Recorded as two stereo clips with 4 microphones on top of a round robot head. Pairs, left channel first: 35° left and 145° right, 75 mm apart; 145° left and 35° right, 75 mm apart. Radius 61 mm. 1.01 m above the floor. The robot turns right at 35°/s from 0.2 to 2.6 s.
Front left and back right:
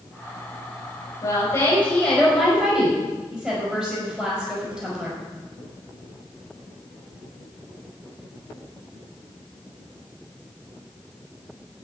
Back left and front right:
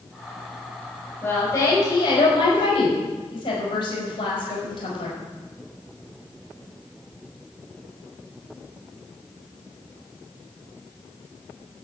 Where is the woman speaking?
75° left, 4.5 m; by 5.2 s 120° left, 4.5 m.